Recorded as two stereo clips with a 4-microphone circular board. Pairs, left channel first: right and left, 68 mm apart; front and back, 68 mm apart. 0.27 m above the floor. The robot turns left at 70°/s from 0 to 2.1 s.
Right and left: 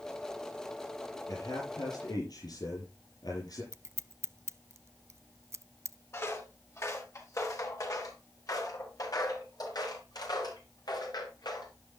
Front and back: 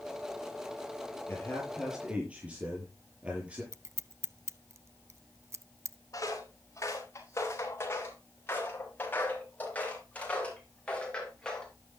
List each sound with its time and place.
1.3 s a man speaking: 50° right, 6.5 m; by 3.6 s 110° right, 6.5 m
3.7 s scissors: 135° left, 0.6 m
6.1 s footsteps: 40° right, 4.5 m; by 11.7 s 80° right, 6 m